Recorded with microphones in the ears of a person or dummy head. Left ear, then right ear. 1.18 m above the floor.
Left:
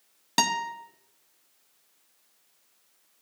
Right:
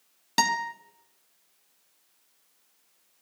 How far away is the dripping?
I don't hear dripping.